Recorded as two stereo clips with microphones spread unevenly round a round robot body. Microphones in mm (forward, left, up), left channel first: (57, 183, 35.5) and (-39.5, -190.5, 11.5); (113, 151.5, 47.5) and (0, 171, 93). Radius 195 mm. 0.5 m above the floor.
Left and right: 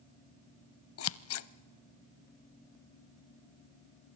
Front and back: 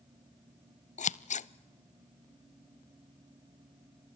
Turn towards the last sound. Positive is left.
turn(degrees=25)